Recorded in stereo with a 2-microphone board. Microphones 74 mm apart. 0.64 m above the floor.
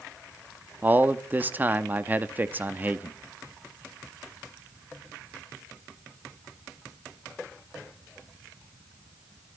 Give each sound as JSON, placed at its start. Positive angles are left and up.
{"t": 0.8, "sound": "a man speaking", "side_deg": -25, "distance_m": 0.7}